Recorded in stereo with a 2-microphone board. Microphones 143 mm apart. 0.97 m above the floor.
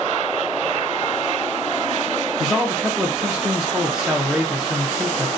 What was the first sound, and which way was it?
A man speaking, 5° right (ahead or behind).